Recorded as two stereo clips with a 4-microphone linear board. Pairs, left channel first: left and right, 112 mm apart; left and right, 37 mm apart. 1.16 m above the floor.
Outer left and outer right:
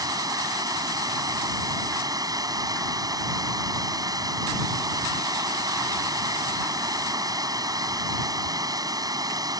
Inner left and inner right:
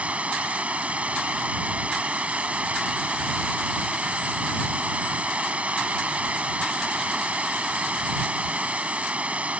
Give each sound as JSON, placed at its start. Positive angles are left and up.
{"t": 0.0, "sound": "running water", "side_deg": -35}